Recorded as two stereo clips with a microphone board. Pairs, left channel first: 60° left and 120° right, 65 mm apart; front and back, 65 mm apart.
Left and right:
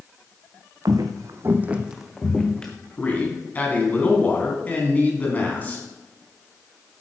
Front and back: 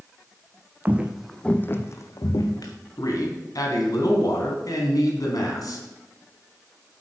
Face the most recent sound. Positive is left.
turn(degrees=-5)